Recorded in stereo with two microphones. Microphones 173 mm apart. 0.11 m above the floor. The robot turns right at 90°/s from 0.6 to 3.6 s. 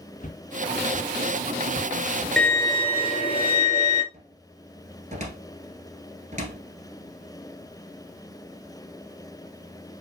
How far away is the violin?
About 0.6 m.